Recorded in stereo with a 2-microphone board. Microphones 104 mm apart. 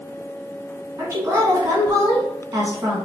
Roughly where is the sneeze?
No sneeze in this recording.